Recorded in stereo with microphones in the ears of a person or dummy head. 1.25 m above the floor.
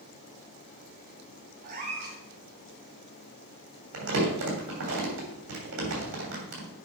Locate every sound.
1.6 s a cat meowing: 45° right (ahead or behind), 2.5 m
3.9 s crumpling: 65° right (ahead or behind), 3 m